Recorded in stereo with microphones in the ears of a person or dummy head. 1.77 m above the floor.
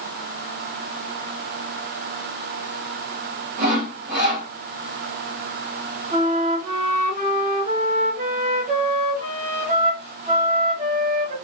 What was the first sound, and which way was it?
Sawing, 40° right (ahead or behind).